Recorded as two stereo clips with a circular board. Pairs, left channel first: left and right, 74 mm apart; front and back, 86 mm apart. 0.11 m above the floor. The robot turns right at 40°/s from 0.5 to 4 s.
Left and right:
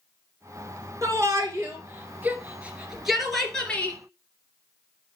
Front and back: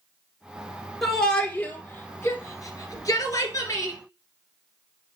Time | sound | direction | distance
1.0 | a shout | 85° right | 1.8 m